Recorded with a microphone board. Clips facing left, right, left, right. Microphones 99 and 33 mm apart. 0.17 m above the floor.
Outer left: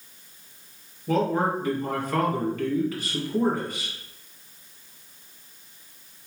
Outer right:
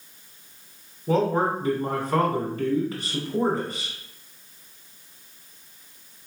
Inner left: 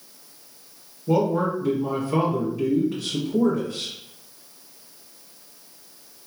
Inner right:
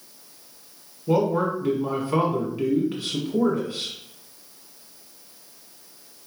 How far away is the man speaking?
About 1.6 m.